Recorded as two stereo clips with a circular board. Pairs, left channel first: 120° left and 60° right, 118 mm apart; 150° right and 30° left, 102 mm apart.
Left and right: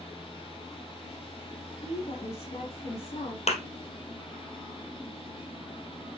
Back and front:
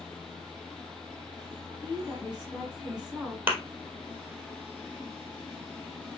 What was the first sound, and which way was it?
A woman speaking, 110° left.